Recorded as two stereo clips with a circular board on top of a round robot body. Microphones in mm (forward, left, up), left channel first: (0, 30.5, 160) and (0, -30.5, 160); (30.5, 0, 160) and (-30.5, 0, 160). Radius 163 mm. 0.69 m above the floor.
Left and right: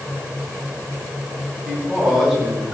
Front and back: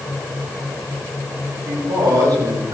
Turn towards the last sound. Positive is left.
turn(degrees=-175)